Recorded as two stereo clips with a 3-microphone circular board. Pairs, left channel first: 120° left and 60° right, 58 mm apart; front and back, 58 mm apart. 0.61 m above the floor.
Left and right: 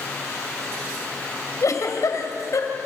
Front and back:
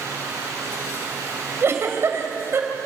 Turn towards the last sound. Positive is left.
turn(degrees=140)